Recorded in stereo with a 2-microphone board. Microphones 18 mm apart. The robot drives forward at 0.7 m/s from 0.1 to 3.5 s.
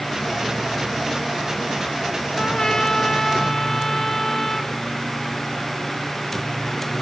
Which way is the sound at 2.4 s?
50° left (ahead or behind).